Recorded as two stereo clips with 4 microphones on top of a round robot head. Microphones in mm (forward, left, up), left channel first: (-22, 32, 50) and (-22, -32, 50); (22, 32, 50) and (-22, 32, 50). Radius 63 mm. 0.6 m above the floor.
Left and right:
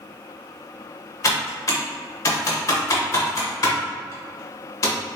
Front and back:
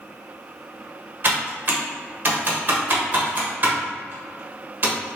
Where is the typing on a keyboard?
130° left, 1.3 m.